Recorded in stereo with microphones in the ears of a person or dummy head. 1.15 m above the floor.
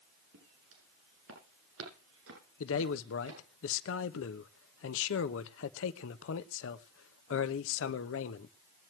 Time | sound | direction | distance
0.3 | footsteps | 75° right (ahead or behind) | 8.5 m
2.6 | a man speaking | 75° left (ahead or behind) | 0.9 m